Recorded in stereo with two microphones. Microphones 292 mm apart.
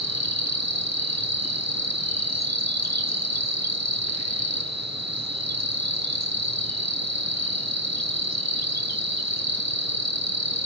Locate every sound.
0.0 s an insect: 65° right (ahead or behind), 1.1 m